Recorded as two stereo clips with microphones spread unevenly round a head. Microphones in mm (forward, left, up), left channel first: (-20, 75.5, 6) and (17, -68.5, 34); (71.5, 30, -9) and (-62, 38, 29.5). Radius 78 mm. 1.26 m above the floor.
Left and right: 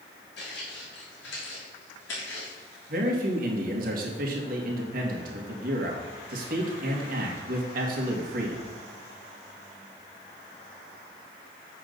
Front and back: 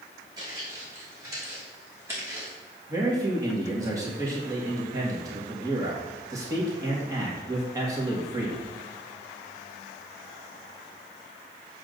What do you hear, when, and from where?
0.4 s footsteps: 125° left, 3.5 m; by 2.5 s 105° left, 4.5 m
2.9 s a man speaking: 110° right, 2 m